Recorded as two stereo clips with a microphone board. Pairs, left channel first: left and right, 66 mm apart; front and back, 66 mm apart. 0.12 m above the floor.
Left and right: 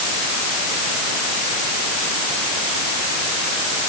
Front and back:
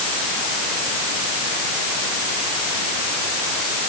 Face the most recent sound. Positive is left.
No sound to turn to.